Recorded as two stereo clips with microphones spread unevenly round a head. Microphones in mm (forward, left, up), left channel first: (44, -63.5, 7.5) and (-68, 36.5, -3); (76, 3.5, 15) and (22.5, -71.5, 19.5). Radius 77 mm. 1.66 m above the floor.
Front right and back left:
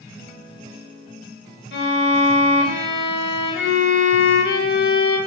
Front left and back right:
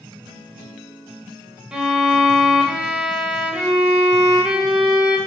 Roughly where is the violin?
Ahead right.